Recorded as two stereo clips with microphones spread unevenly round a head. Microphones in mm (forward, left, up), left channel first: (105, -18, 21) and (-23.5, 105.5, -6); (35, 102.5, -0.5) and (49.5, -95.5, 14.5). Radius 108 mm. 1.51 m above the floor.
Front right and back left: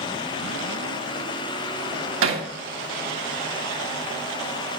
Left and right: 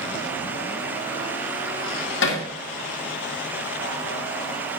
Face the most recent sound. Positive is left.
turn(degrees=135)